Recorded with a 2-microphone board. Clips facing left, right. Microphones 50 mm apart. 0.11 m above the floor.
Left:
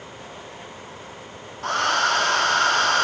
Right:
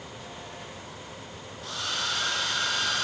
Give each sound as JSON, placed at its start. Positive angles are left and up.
{"t": 1.6, "sound": "a hair dryer", "side_deg": 60, "distance_m": 1.0}